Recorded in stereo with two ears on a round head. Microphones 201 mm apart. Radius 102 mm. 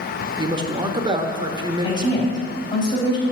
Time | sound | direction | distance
0.4 | a man speaking | 20° right (ahead or behind) | 1.1 m
1.8 | a woman speaking | 20° left (ahead or behind) | 3.5 m